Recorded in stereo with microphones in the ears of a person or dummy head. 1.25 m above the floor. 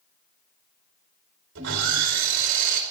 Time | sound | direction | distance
1.6 | sawing | 70° right (ahead or behind) | 4.5 m